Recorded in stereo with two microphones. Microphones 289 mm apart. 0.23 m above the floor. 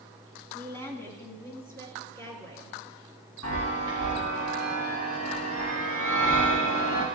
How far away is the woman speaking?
About 2 m.